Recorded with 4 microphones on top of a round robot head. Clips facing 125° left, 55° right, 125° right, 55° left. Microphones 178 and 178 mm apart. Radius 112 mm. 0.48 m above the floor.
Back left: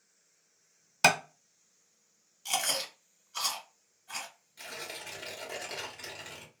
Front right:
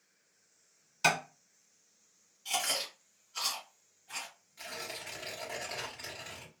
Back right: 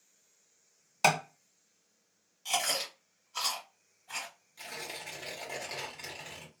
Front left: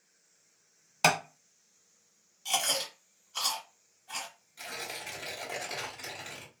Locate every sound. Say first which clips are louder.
1.0 s tapping: back left 4 dB, even; 145° left, 0.6 m
2.5 s chewing: back left 2 dB, front left 1 dB; 150° left, 1.2 m
4.6 s tearing paper: even, front left 2 dB; 135° left, 1.4 m